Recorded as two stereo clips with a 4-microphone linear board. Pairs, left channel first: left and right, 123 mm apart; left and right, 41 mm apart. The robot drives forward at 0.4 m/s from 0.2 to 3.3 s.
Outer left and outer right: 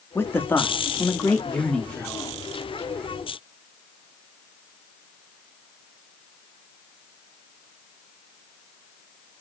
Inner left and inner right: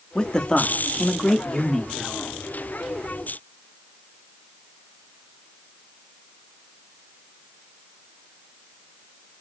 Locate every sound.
0.1 s a man speaking: 20° left (ahead or behind), 0.7 m; by 2.5 s 10° left (ahead or behind), 1.5 m